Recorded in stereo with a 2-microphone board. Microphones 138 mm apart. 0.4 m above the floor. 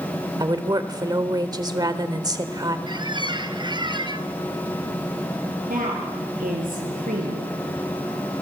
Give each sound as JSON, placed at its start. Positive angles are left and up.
{"t": 0.4, "sound": "a woman speaking", "side_deg": -30, "distance_m": 1.5}
{"t": 2.9, "sound": "a squeak", "side_deg": -35, "distance_m": 1.3}
{"t": 5.7, "sound": "a woman speaking", "side_deg": -80, "distance_m": 7.0}